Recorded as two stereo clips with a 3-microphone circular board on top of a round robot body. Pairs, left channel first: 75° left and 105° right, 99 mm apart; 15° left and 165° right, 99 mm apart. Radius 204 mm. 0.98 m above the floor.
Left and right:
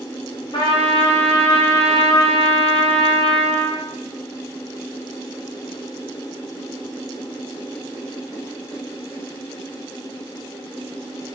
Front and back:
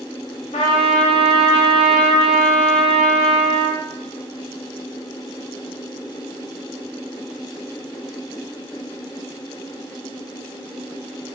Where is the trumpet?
30° left, 0.7 m.